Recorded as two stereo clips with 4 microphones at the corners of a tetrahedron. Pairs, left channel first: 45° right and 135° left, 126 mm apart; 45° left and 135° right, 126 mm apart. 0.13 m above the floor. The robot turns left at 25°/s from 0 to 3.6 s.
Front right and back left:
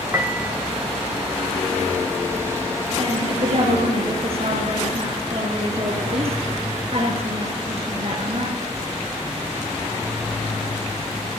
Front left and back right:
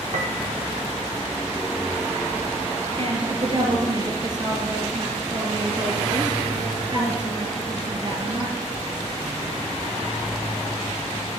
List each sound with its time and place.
0.1 s a piano: 155° right, 1.3 m; by 0.5 s 165° right, 1.3 m
3.0 s a woman speaking: 175° right, 4.5 m; by 8.7 s 170° left, 4.5 m